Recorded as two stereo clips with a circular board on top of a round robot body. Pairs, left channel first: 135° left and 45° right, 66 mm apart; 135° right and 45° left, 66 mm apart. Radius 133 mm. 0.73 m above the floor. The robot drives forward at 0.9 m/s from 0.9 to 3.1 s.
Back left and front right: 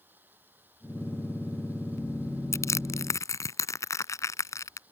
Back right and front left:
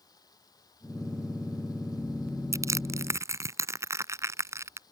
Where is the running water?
105° right; by 4.9 s 110° right.